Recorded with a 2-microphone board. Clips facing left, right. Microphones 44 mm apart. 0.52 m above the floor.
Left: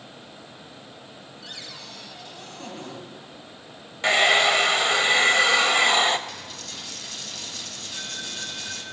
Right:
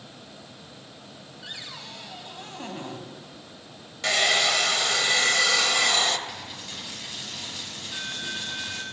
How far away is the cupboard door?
About 2.0 m.